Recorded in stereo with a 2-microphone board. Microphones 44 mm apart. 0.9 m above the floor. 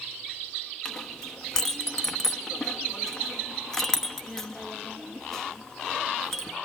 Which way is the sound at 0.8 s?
10° left (ahead or behind).